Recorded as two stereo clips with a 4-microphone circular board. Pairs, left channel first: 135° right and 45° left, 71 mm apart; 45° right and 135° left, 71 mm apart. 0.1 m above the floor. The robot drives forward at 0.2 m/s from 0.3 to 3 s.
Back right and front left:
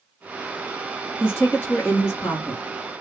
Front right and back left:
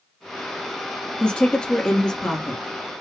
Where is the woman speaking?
105° right, 1.9 m; by 2.6 s 120° right, 1.9 m.